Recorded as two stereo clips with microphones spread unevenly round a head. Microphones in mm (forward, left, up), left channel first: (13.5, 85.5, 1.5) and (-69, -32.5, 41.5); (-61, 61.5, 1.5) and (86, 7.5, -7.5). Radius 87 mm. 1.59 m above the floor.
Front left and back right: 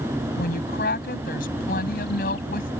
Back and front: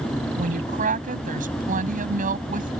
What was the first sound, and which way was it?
A woman speaking, 15° left.